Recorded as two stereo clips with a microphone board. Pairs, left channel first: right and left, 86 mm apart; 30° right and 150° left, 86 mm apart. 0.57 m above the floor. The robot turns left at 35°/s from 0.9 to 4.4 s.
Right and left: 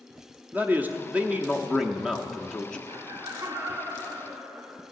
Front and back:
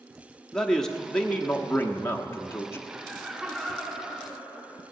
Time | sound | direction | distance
0.5 | a man speaking | 45° left | 0.9 m
2.9 | laughter | 80° left | 1.2 m